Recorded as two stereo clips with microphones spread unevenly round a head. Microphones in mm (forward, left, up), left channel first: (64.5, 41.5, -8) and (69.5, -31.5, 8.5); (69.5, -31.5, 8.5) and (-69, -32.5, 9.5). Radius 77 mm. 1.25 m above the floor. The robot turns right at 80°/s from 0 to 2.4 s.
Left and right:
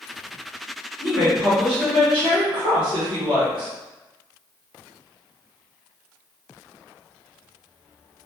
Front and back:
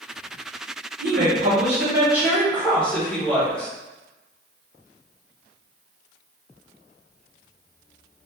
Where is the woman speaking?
170° left, 1.7 m; by 3.7 s 80° right, 1.7 m.